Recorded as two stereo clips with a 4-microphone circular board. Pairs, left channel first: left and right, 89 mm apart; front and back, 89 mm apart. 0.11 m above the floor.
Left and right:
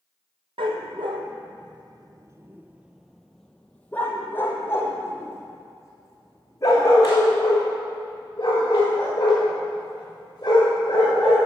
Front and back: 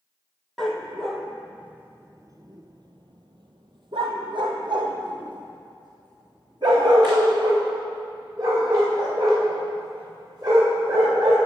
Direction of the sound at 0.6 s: 85° right.